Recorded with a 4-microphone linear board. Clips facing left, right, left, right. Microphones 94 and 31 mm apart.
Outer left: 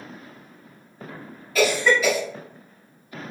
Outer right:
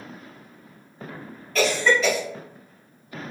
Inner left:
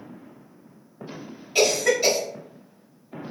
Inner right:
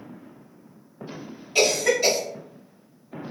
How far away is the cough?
About 1.5 m.